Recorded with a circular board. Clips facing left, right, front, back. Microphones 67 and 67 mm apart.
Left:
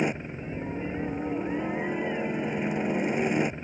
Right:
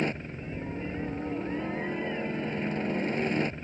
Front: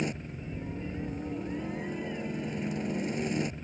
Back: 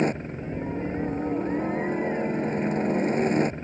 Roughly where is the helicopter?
Behind.